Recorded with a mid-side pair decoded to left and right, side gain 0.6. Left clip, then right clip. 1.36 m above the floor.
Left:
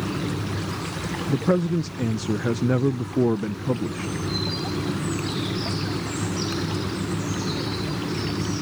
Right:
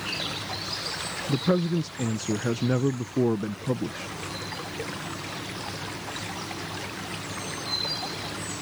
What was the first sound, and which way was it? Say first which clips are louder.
A fan: left 1 dB; 55° left.